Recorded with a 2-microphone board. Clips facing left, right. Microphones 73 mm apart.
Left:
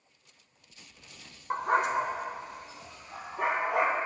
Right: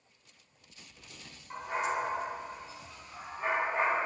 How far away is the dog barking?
About 0.9 m.